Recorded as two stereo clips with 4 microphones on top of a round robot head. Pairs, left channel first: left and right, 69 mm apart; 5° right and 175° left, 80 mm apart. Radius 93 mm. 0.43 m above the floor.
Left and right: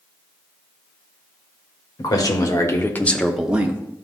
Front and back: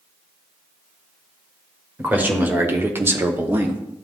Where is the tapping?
I don't hear tapping.